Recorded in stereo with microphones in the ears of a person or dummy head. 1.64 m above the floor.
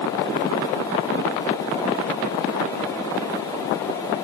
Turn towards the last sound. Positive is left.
No sound to turn to.